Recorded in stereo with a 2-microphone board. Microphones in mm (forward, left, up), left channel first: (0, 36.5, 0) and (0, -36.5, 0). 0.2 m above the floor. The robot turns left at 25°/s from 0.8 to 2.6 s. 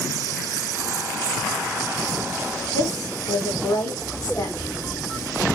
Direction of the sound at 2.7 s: 45° left (ahead or behind).